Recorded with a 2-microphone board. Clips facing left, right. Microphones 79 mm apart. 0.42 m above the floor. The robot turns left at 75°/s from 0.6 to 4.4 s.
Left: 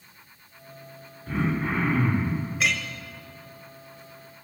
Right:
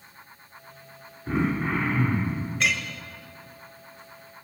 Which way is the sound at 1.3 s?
155° right.